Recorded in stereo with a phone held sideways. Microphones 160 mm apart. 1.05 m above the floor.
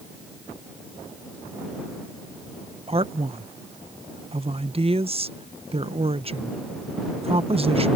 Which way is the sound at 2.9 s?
35° right (ahead or behind).